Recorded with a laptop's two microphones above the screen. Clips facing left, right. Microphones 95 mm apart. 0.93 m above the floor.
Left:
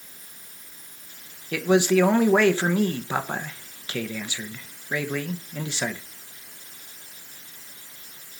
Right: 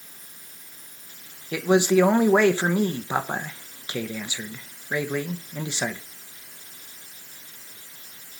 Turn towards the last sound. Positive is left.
turn(degrees=-15)  # may be behind; listen again after turning